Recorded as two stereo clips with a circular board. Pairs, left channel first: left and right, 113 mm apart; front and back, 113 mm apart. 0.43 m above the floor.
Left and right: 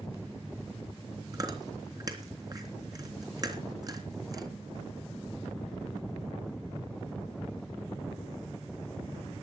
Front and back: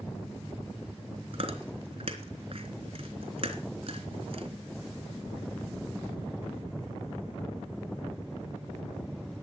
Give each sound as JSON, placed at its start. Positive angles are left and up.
{"t": 1.3, "sound": "chewing", "azimuth_deg": -145, "distance_m": 3.0}